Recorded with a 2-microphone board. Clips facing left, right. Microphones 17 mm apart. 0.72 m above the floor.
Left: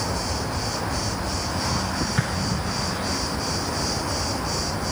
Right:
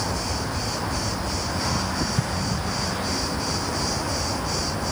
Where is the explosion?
40° left (ahead or behind).